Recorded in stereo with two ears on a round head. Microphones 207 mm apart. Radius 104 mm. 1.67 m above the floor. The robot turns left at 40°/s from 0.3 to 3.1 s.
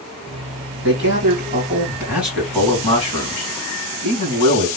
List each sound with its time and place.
0.8 s a man speaking: 120° right, 2.5 m; by 4.7 s 150° left, 2.5 m